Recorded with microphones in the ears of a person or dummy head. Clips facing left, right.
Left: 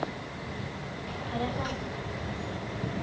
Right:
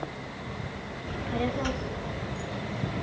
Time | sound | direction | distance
1.1 | a child speaking | 15° right (ahead or behind) | 1.2 m